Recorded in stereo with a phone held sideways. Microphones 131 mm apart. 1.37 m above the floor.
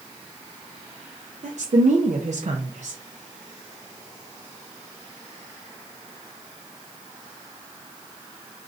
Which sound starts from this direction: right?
A woman speaking, at 1.4 s.